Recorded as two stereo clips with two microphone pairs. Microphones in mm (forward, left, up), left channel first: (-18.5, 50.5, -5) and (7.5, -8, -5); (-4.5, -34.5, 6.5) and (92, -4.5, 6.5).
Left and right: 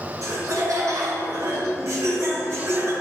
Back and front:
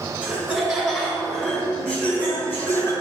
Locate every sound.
0.2 s laughter: 55° right, 2.5 m; by 2.9 s 105° right, 1.7 m